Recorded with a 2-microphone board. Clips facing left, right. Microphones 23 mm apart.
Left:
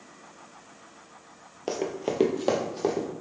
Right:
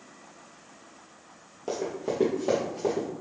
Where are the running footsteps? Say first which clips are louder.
Left 1 dB; 40° left (ahead or behind), 0.6 m; by 3.1 s 50° left (ahead or behind), 1.3 m.